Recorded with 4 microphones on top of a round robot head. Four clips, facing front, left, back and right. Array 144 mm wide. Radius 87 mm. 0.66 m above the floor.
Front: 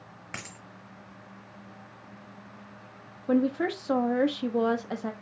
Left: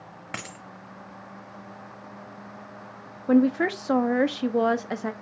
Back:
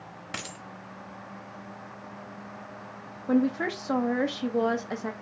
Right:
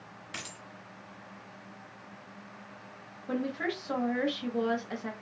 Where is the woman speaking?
90° left, 0.8 m.